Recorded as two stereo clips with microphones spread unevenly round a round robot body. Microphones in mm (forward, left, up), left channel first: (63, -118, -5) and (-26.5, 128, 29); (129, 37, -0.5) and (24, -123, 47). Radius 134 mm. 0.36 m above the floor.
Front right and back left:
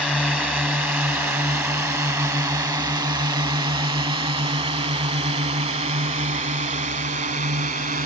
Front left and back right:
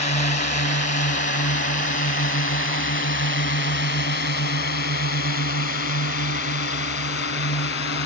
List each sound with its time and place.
0.0 s a drone: 20° left; by 8.1 s 50° left